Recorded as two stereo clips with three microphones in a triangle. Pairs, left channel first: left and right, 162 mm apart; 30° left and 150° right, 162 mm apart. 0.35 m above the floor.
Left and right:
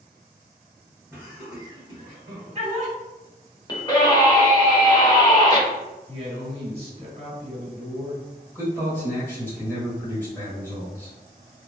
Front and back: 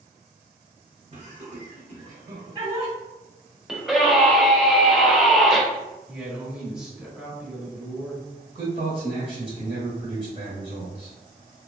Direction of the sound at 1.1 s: 160° right.